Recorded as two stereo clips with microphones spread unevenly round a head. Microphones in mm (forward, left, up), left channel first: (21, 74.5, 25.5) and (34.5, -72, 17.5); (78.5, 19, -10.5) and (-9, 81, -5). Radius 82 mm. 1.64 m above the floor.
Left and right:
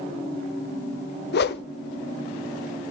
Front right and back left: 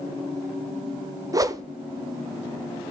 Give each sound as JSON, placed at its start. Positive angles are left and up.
{"t": 1.3, "sound": "a whoosh", "azimuth_deg": 85, "distance_m": 0.8}